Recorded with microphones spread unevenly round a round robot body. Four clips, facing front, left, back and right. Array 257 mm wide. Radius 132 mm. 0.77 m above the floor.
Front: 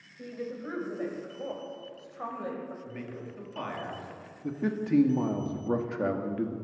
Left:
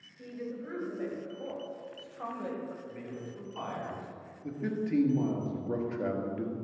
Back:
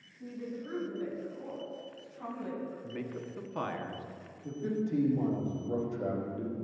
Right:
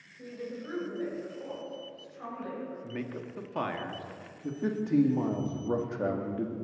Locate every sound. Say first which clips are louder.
0.2 s a woman speaking: even, front 3 dB; 10° right, 3.5 m; by 2.7 s 30° left, 3.5 m
2.8 s a man speaking: right 4 dB, back 1 dB; 100° right, 1.8 m
4.4 s a man speaking: right 2 dB, front 3 dB; 20° right, 1.5 m